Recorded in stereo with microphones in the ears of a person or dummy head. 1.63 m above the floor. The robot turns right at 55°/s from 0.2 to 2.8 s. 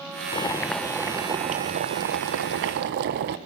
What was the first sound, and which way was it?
Boiling, 150° left.